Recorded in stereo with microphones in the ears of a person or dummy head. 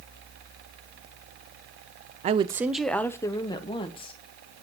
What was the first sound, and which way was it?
A woman speaking, 40° right (ahead or behind).